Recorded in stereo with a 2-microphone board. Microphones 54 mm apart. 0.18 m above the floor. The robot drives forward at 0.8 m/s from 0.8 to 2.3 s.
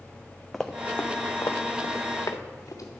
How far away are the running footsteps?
About 0.8 m.